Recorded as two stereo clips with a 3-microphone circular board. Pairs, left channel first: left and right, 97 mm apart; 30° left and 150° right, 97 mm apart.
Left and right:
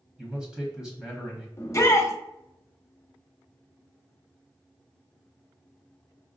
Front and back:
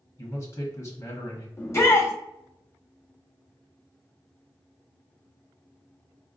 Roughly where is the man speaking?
Ahead.